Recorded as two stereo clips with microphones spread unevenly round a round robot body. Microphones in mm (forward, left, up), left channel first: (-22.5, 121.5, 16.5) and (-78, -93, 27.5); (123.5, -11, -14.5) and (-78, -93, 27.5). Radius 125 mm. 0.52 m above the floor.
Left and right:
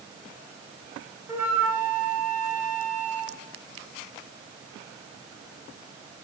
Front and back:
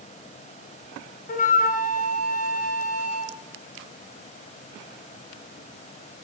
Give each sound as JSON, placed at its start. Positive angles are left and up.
{"t": 1.3, "sound": "a flute", "azimuth_deg": -20, "distance_m": 1.2}